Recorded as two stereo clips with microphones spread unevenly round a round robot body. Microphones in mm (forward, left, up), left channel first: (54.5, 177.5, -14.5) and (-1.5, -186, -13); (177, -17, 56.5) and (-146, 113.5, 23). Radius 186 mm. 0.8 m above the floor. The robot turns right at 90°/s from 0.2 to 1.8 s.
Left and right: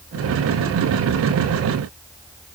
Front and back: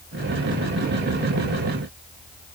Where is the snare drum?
I don't hear a snare drum.